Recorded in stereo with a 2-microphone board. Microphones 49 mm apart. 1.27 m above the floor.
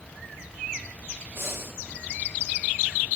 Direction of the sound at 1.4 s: 45° right (ahead or behind).